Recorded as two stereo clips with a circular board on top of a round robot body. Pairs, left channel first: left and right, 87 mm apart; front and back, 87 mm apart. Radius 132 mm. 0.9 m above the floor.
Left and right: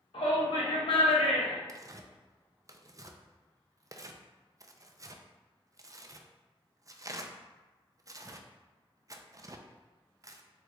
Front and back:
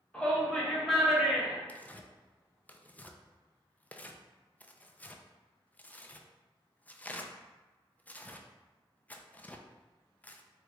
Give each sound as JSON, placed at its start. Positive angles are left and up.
{"t": 0.1, "sound": "a shout", "azimuth_deg": 80, "distance_m": 1.6}
{"t": 1.7, "sound": "tearing paper", "azimuth_deg": -65, "distance_m": 0.5}